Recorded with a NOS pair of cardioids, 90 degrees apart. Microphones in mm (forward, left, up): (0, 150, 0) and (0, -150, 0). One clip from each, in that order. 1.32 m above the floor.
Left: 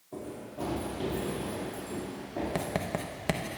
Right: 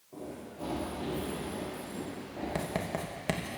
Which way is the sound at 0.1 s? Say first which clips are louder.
Left 3 dB; 60° left.